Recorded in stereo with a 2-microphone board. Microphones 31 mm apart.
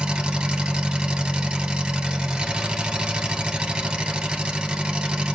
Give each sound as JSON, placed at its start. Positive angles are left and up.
{"t": 0.0, "sound": "an engine running", "side_deg": -30, "distance_m": 1.6}